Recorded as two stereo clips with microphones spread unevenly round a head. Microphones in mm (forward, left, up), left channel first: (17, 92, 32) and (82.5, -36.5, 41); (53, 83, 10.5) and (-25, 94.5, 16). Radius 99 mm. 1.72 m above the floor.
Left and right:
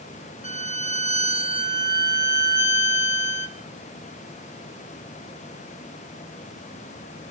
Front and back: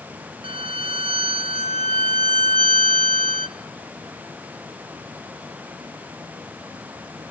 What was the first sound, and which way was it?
A violin, 170° left.